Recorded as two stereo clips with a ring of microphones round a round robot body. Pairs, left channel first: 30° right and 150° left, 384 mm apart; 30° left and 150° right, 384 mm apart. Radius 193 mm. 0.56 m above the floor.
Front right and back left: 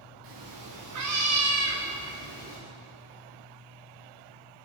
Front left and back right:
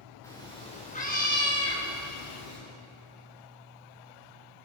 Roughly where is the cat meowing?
Behind left.